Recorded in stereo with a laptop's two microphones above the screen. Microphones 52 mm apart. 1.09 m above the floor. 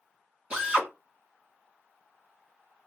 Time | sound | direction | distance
0.5 | a drill | 20° right (ahead or behind) | 1.2 m